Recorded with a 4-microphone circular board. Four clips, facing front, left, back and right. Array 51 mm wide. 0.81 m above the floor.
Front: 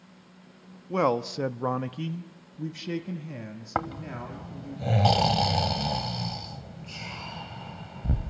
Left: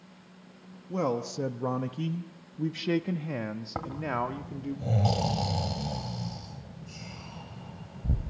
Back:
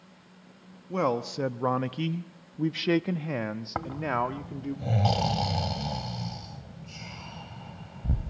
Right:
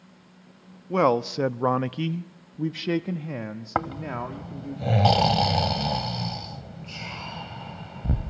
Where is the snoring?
65° right, 1.2 m.